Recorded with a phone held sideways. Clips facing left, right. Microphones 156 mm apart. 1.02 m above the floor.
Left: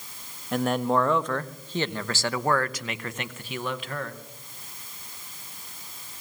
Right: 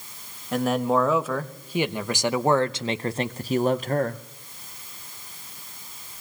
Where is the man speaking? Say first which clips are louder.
Right 2 dB; centre (ahead or behind), 1.8 m; by 4.2 s 45° right (ahead or behind), 1.0 m.